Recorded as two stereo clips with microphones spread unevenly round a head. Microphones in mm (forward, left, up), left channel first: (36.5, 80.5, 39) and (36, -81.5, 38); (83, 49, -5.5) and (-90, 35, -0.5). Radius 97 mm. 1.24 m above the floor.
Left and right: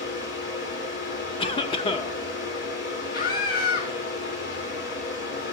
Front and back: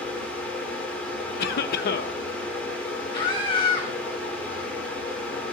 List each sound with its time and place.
0.0 s a fan: 85° left, 4 m
1.4 s a cough: 30° left, 0.9 m
3.1 s a scream: 65° left, 1.4 m